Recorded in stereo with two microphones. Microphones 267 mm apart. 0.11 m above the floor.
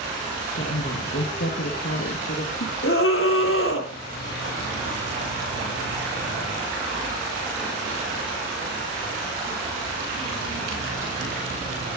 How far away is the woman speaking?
About 2 m.